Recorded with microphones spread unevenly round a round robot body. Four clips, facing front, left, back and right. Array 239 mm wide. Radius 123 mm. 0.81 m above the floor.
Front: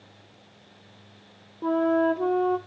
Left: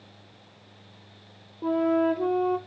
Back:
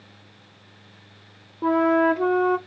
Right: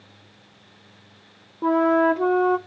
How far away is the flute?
About 0.6 m.